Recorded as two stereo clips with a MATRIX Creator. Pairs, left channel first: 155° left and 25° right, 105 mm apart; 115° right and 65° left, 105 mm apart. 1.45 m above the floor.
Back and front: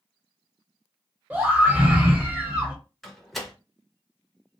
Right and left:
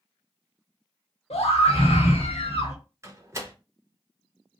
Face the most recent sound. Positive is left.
turn(degrees=70)